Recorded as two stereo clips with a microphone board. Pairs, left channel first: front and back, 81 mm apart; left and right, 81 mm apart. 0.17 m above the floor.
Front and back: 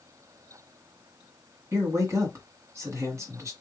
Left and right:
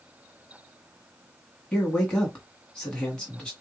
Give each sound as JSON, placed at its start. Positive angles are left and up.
{"t": 1.7, "sound": "a man speaking", "azimuth_deg": 165, "distance_m": 1.9}